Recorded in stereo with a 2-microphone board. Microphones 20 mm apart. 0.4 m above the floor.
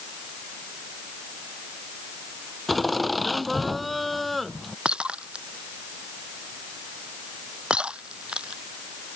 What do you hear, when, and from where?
2.7 s laughter: 5° right (ahead or behind)
4.8 s breaking glass: 60° right (ahead or behind)